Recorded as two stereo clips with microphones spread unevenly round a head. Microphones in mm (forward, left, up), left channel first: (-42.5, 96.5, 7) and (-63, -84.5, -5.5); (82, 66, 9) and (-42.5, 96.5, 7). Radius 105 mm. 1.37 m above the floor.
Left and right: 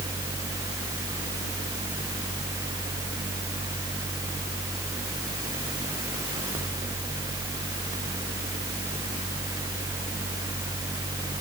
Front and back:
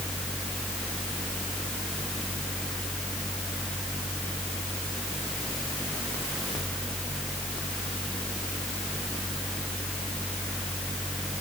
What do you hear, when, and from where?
Only background noise.